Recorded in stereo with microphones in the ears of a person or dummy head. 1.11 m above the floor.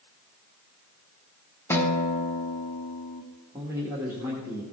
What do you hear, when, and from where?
1.7 s a guitar: 15° left (ahead or behind), 1.0 m
3.5 s a man speaking: 10° right (ahead or behind), 2 m